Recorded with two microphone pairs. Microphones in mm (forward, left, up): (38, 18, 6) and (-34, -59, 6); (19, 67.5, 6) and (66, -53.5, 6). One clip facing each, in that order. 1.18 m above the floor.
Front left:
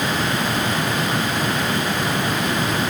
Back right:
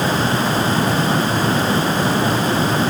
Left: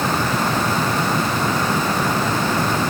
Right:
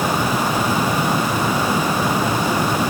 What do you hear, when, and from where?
Only background noise.